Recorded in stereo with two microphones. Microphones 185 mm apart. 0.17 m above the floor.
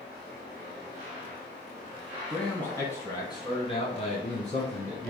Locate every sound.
2.3 s a man speaking: 5° left (ahead or behind), 1.7 m; by 5.1 s 50° left (ahead or behind), 2.5 m